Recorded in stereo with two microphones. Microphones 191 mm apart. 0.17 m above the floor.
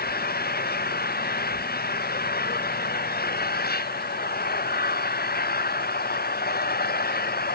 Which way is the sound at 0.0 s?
55° left (ahead or behind).